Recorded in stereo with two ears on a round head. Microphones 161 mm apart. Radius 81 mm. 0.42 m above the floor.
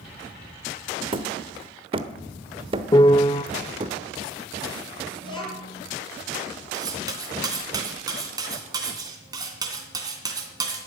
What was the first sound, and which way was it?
Hammering, 30° right (ahead or behind).